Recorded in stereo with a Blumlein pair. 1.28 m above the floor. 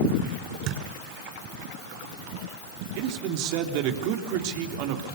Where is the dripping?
No dripping in this recording.